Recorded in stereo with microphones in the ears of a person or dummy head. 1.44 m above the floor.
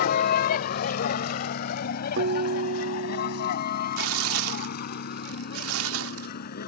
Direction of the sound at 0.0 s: 55° left (ahead or behind).